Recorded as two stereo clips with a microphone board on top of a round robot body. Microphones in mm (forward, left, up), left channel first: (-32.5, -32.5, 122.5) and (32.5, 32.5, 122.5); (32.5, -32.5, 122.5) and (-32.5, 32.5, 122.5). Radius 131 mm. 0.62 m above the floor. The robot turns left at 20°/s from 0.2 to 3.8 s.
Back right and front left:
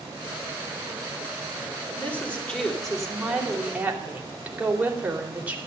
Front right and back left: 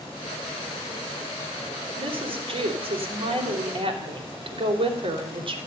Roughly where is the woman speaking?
Behind left.